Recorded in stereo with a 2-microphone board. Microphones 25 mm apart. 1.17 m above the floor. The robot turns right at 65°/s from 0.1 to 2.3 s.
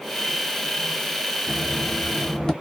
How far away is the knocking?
About 0.9 m.